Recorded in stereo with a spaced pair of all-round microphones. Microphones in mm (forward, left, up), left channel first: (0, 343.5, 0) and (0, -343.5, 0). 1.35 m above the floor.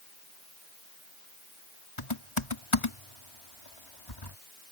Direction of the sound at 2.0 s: 45° left (ahead or behind).